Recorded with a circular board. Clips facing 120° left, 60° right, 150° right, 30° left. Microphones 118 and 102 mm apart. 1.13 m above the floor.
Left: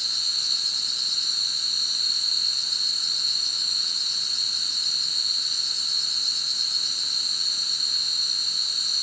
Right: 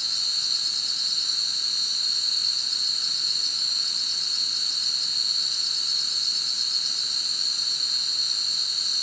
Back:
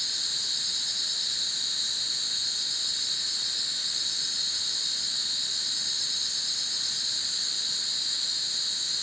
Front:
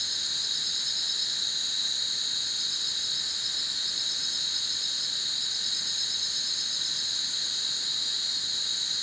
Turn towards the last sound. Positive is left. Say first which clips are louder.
# even, even
turn(degrees=-165)